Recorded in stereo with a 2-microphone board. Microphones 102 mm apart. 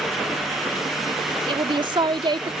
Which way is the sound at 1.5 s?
55° right (ahead or behind).